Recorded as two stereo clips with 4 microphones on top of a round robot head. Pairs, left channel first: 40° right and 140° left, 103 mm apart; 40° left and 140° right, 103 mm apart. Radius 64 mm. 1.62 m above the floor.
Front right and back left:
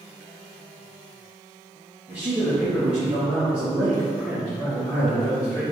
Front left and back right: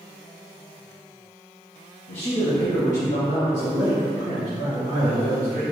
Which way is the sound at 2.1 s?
65° left.